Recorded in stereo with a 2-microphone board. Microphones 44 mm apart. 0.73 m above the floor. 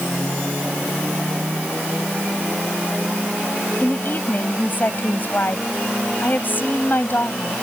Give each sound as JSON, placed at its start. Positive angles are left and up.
{"t": 3.8, "sound": "a woman speaking", "side_deg": 45}